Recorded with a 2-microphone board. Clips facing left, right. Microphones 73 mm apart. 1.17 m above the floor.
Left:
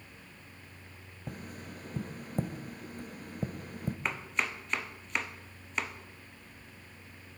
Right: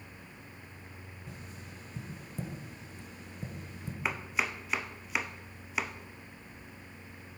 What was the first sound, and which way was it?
Tapping, 50° left (ahead or behind).